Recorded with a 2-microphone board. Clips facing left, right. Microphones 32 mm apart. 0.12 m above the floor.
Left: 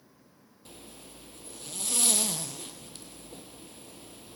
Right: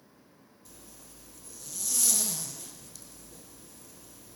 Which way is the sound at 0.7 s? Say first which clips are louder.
Left 6 dB; 45° left (ahead or behind).